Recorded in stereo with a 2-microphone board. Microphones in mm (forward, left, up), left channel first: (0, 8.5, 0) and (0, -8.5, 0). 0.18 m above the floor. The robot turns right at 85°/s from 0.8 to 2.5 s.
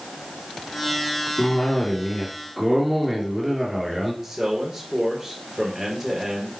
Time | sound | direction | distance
1.4 | a cough | 95° left | 3 m
4.2 | a man speaking | 15° right (ahead or behind) | 3.5 m